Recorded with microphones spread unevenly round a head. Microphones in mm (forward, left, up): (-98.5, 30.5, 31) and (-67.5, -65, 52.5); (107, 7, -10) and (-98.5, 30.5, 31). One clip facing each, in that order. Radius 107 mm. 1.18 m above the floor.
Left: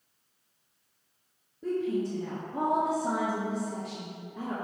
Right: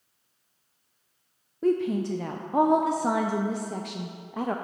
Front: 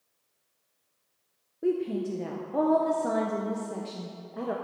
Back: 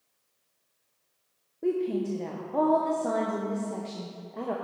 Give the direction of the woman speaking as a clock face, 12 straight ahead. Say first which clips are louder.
Right 5 dB, even; 3 o'clock.